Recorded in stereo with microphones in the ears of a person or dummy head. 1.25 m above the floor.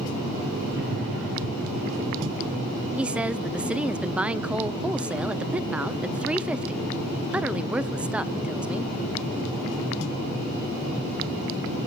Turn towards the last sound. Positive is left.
turn(degrees=-5)  # may be behind; listen again after turning